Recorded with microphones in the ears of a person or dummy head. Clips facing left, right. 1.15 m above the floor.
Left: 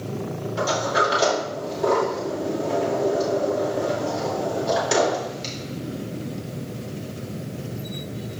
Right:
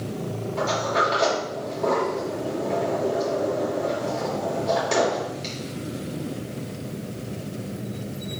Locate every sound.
0.6 s a sliding door: 10° left (ahead or behind), 2.5 m